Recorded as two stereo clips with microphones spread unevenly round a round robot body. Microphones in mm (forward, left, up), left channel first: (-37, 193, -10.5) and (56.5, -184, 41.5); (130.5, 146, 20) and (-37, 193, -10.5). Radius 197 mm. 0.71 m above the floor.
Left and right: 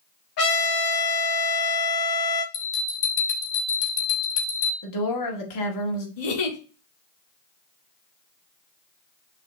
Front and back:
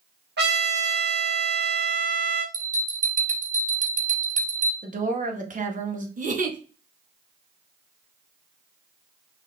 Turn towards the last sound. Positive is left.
turn(degrees=120)